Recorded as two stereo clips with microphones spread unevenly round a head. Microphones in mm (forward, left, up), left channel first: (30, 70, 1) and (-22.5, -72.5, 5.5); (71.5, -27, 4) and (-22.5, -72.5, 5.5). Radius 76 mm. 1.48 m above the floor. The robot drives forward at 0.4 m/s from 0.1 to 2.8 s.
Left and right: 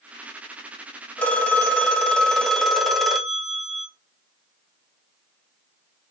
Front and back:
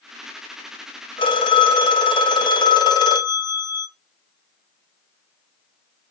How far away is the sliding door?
I don't hear a sliding door.